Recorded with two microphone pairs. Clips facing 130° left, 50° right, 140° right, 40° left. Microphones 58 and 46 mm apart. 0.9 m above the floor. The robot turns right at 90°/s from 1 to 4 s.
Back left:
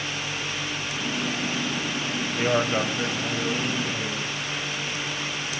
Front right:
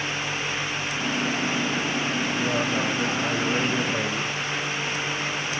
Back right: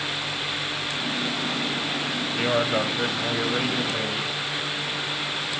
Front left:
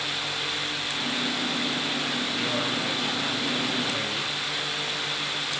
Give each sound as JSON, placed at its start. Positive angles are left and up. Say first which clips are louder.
{"t": 2.4, "sound": "a man speaking", "louder": "back left 5 dB, back right 9 dB", "azimuth_deg": 155, "distance_m": 4.5}